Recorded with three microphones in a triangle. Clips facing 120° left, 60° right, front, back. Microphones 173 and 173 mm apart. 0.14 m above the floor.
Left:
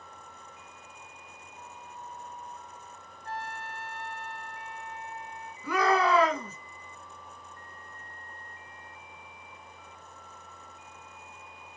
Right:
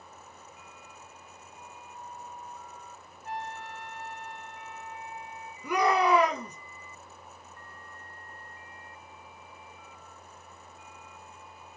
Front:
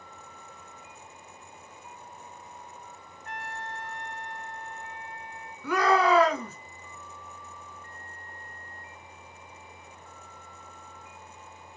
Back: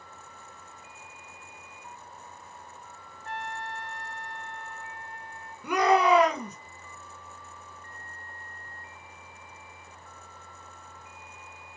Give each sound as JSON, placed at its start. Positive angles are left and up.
{"t": 3.2, "sound": "a trumpet", "azimuth_deg": -130, "distance_m": 0.6}
{"t": 5.6, "sound": "a shout", "azimuth_deg": -120, "distance_m": 1.9}